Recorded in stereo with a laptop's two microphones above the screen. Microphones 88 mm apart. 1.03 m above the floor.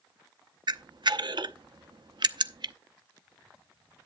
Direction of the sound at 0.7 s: 60° right (ahead or behind).